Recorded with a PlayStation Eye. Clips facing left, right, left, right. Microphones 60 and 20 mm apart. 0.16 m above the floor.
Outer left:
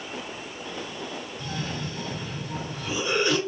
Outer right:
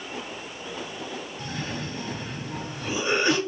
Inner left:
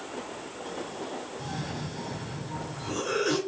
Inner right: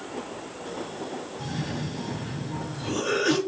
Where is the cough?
30° right (ahead or behind), 2.0 m.